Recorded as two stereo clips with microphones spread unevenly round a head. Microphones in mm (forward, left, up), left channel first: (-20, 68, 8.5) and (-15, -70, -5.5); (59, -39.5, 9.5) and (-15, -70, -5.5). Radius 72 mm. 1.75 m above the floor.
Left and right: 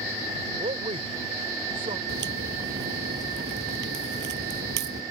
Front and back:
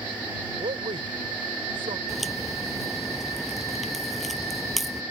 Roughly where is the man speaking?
Behind right.